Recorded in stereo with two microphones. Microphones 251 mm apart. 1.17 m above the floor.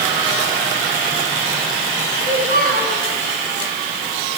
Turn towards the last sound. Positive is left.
turn(degrees=-35)  # may be behind; listen again after turning